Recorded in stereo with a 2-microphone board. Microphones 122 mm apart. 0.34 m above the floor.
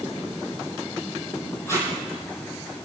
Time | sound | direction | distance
1.7 | tape being pulled | 20° left (ahead or behind) | 5.5 m